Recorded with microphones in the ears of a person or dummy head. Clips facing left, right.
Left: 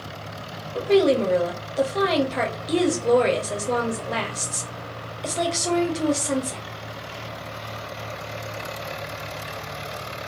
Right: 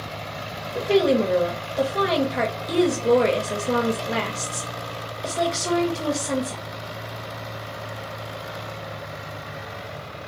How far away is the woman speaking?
About 0.6 m.